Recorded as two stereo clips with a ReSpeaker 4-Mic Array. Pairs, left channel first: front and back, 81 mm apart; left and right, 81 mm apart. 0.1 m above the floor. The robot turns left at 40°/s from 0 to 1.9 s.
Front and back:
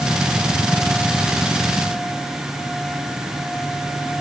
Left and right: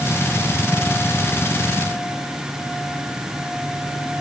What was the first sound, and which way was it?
Only background noise.